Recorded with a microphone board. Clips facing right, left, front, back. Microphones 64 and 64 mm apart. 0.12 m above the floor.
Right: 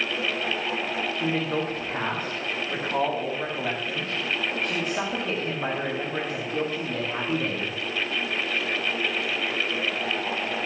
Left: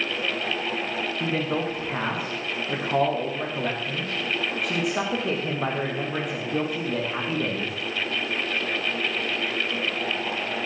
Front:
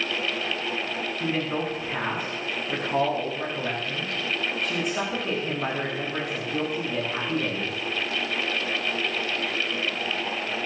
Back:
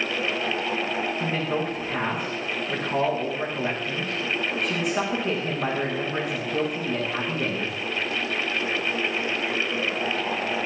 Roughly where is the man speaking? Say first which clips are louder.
Left 1 dB, back 1 dB; left.